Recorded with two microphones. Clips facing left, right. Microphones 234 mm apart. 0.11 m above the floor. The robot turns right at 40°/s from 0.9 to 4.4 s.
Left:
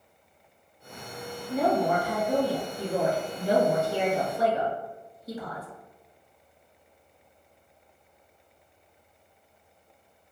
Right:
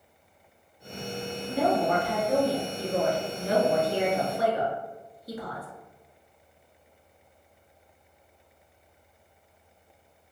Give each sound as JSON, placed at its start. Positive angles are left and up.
{"t": 1.5, "sound": "a woman speaking", "side_deg": -5, "distance_m": 1.1}